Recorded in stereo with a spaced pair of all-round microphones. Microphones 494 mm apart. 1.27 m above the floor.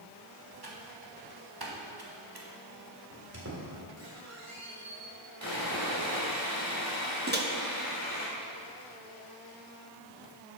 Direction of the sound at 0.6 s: 50° right (ahead or behind).